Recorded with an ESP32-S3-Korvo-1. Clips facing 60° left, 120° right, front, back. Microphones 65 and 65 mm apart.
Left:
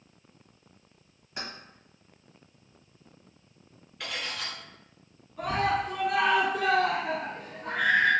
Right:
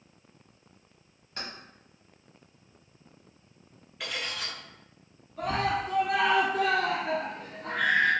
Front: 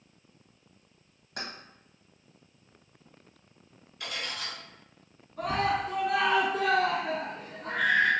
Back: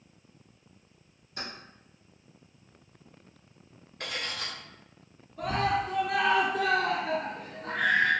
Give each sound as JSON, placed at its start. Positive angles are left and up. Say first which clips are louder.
{"t": 1.4, "sound": "keys jangling", "louder": "left 1 dB, front 1 dB", "azimuth_deg": -20, "distance_m": 1.1}
{"t": 4.0, "sound": "cutlery clinking", "louder": "even, back 1 dB", "azimuth_deg": 155, "distance_m": 0.9}
{"t": 5.4, "sound": "a scream", "louder": "left 1 dB, even", "azimuth_deg": -35, "distance_m": 1.5}